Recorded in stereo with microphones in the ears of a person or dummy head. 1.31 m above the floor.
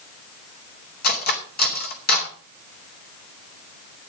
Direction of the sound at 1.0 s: 55° left (ahead or behind).